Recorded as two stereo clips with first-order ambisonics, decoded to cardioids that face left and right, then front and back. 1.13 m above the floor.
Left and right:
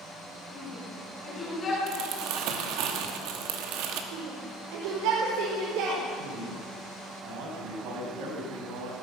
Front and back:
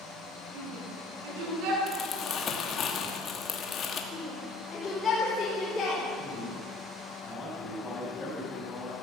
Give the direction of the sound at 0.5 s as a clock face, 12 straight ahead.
6 o'clock.